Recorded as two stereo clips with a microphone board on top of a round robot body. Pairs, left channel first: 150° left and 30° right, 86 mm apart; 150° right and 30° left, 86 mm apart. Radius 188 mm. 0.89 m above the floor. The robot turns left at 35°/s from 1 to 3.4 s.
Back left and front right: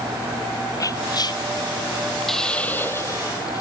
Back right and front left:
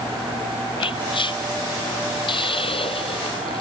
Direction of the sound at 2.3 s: 125° right.